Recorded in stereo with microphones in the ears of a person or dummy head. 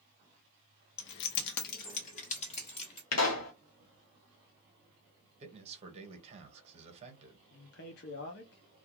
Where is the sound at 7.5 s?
50° left (ahead or behind), 0.5 m.